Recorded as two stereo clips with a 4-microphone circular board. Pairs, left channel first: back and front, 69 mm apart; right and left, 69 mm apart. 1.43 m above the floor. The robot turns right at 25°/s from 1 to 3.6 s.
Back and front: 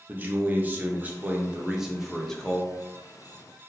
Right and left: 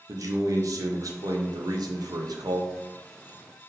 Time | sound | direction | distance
0.1 | a man speaking | 65° left | 0.8 m